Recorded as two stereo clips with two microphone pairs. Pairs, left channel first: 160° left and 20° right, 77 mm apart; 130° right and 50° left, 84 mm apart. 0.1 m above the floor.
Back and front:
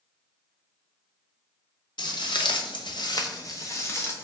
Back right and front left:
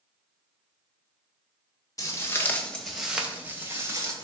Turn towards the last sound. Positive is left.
turn(degrees=100)